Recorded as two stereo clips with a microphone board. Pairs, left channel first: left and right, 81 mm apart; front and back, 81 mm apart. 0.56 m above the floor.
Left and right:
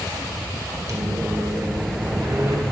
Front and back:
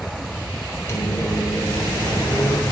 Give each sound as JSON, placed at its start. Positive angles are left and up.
{"t": 0.9, "sound": "a microwave", "azimuth_deg": -55, "distance_m": 1.4}